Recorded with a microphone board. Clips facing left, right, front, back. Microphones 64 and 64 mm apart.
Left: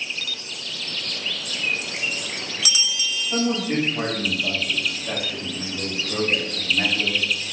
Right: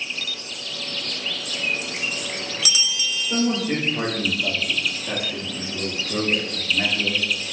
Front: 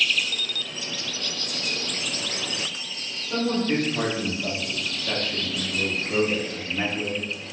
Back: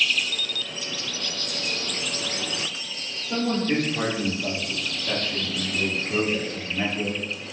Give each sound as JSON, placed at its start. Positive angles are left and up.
{"t": 3.3, "sound": "a man speaking", "azimuth_deg": -120, "distance_m": 1.5}